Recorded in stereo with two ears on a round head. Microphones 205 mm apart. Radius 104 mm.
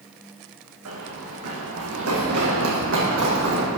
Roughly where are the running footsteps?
Right.